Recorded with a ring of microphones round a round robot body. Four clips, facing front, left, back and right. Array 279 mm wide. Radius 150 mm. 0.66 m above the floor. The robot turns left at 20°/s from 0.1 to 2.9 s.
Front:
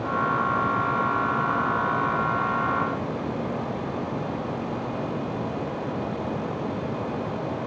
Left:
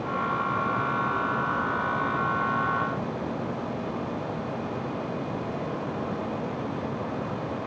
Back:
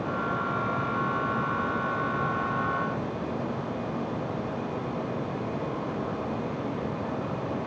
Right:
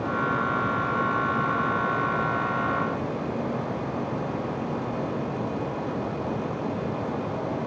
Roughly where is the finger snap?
No finger snap in this recording.